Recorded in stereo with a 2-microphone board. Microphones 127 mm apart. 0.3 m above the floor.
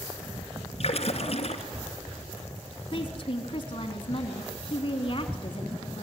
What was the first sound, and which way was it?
A splash, 50° left (ahead or behind).